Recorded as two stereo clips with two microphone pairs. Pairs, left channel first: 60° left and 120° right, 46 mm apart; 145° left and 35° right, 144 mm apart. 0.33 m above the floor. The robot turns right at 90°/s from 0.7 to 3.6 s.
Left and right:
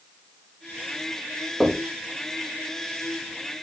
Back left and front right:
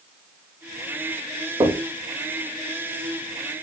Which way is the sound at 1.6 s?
50° right.